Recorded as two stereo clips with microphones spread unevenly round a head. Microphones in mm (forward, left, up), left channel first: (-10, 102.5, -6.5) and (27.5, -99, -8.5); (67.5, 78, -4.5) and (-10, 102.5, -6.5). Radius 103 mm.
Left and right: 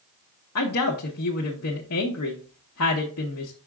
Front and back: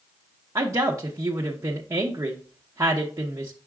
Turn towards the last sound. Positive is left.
turn(degrees=115)